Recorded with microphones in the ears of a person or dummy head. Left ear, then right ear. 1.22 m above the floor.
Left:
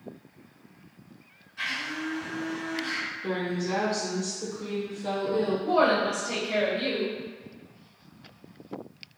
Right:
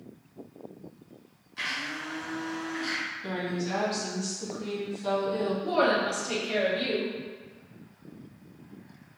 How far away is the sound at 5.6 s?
About 1.7 m.